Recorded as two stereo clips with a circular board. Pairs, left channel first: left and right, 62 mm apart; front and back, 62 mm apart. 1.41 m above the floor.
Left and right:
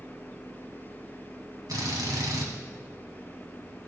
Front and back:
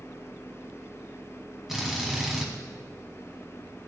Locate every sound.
1.7 s a drill: 95° right, 2 m